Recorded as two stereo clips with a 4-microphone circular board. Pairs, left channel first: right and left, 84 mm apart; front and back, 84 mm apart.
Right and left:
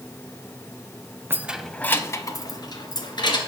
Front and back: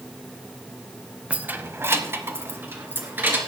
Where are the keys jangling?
120° left, 0.7 m; by 3.4 s 115° right, 2 m.